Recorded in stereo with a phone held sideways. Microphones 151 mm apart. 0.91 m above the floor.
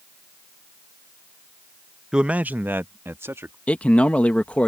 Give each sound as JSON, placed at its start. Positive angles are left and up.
{"t": 2.1, "sound": "a man speaking", "side_deg": -5}
{"t": 3.7, "sound": "a man speaking", "side_deg": 10}